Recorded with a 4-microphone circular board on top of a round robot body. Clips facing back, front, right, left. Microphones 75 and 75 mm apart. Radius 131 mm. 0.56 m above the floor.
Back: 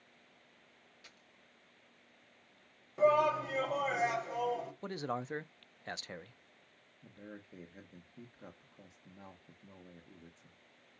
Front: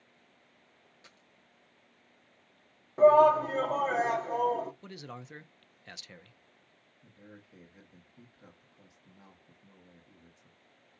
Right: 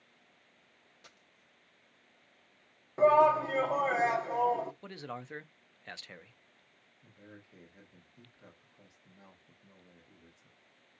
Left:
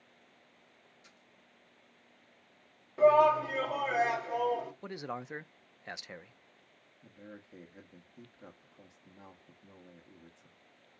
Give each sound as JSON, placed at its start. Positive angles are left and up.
{"t": 1.0, "sound": "a dropped coin", "azimuth_deg": -65, "distance_m": 1.6}
{"t": 3.0, "sound": "a shout", "azimuth_deg": -35, "distance_m": 1.7}
{"t": 4.8, "sound": "a man speaking", "azimuth_deg": 155, "distance_m": 0.7}
{"t": 7.0, "sound": "a man speaking", "azimuth_deg": 140, "distance_m": 1.7}